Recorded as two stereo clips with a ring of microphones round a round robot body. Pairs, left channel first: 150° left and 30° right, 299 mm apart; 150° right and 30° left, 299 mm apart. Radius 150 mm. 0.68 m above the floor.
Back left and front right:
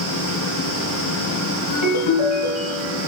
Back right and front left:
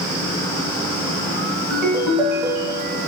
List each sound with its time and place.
1.7 s a ringtone: 120° left, 3 m